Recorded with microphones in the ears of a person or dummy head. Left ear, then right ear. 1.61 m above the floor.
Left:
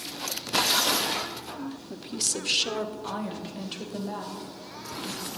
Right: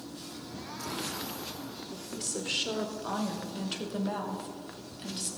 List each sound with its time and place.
1.9 s a woman speaking: 50° left (ahead or behind), 0.7 m; by 5.3 s 15° right (ahead or behind), 2 m